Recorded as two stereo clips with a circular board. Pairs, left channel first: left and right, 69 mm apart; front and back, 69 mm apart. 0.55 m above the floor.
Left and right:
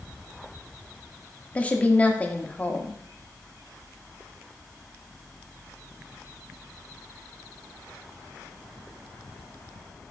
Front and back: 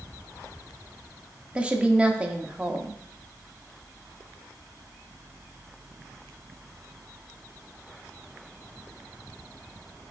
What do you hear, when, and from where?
1.6 s a woman speaking: 125° left, 0.8 m